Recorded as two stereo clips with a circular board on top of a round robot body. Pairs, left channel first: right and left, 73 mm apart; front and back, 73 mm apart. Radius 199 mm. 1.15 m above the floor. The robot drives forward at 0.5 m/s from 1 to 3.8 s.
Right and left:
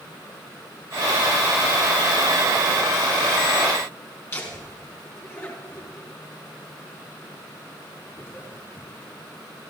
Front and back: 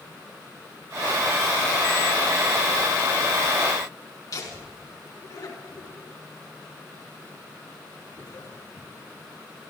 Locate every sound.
4.3 s laughter: 35° right, 4.5 m